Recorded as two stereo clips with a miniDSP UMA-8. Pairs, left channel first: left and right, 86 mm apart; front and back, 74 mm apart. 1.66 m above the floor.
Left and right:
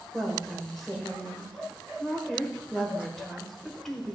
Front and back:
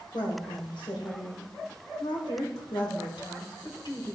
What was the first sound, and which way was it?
A woman speaking, 5° left.